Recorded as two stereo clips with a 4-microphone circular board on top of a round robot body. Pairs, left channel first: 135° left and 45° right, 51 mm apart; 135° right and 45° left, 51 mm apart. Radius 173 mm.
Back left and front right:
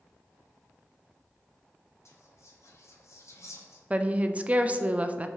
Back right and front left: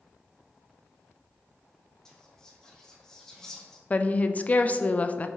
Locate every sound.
2.0 s whispering: 145° left, 1.1 m
3.9 s a woman speaking: 95° right, 0.5 m